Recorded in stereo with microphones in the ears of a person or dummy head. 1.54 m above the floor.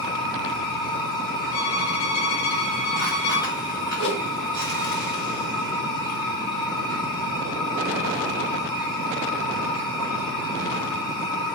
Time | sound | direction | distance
0.0 | a machine running | 20° left (ahead or behind) | 1.7 m
1.5 | a violin | 70° left (ahead or behind) | 1.3 m
4.0 | a whoosh | 60° left (ahead or behind) | 2.5 m